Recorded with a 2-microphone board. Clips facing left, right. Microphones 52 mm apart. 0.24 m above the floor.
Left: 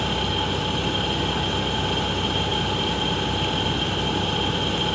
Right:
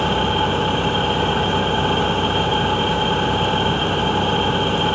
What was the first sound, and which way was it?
An engine running, 30° right (ahead or behind).